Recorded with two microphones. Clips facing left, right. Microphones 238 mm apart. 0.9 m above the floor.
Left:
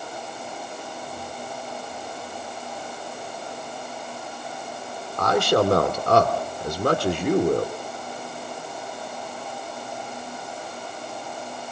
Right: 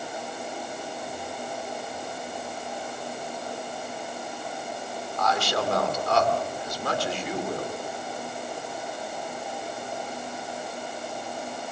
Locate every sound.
5.2 s a man speaking: 60° left (ahead or behind), 2 m